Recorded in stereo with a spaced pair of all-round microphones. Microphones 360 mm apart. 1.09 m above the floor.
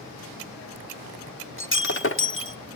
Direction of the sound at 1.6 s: 35° left (ahead or behind).